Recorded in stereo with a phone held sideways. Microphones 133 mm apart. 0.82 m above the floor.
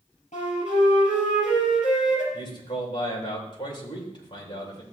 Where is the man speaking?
35° left (ahead or behind), 3 m.